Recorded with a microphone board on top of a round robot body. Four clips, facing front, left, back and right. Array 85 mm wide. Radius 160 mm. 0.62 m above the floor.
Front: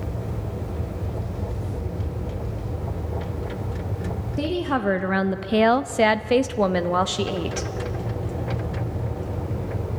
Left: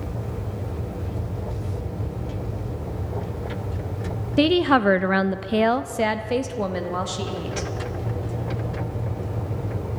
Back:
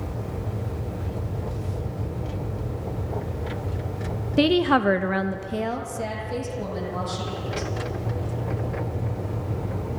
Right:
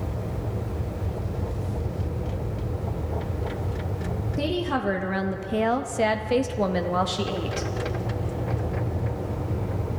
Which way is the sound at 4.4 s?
130° left.